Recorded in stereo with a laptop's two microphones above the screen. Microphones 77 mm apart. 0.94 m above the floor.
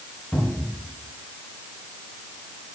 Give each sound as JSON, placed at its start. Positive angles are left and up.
{"t": 0.3, "sound": "a cupboard door", "side_deg": 15, "distance_m": 5.0}